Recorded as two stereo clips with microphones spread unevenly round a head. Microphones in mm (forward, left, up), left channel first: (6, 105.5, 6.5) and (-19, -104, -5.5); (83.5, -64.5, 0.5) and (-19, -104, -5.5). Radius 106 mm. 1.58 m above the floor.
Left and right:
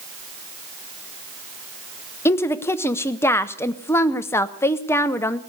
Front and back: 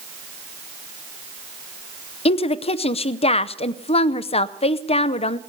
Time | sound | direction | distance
2.2 | a woman speaking | 5° left | 0.7 m